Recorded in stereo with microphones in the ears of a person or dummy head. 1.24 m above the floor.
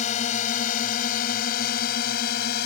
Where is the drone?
40° left (ahead or behind); by 2.7 s 55° left (ahead or behind).